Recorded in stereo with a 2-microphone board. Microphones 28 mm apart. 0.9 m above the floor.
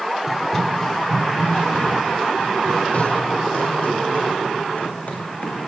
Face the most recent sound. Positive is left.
turn(degrees=60)  # may be behind; listen again after turning